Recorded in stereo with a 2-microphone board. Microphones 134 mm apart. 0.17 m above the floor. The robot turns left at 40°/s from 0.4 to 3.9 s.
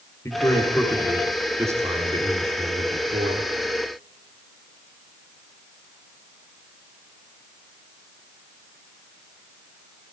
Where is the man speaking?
25° left, 2.5 m; by 3.5 s 100° right, 2.5 m.